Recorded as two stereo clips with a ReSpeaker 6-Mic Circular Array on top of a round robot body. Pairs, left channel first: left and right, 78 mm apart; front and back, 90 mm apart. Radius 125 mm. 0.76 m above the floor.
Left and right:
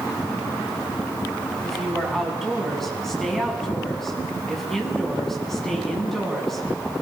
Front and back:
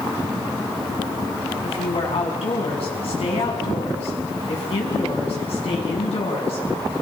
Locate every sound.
1.6 s a woman speaking: 5° left, 6.5 m